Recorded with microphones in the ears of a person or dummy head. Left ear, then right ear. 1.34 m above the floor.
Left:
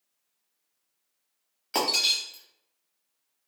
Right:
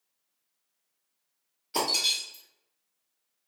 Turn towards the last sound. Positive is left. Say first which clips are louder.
# left 2 dB
turn(degrees=45)  # may be behind; listen again after turning